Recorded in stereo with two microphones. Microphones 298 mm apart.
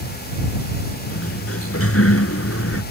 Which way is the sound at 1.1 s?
50° left (ahead or behind).